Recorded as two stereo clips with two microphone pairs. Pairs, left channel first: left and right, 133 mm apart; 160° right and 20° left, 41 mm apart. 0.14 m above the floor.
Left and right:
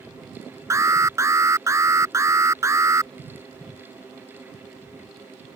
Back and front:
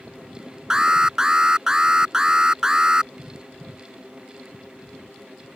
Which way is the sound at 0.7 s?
40° right.